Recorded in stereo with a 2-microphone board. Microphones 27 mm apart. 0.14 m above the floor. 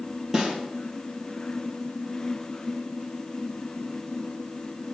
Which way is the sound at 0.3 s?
20° right (ahead or behind).